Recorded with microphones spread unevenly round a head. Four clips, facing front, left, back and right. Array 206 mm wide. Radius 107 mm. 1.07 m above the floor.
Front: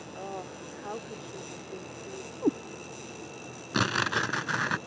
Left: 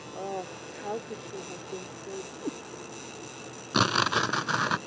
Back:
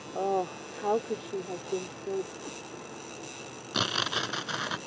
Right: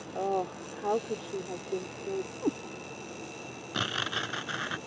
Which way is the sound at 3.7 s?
60° left.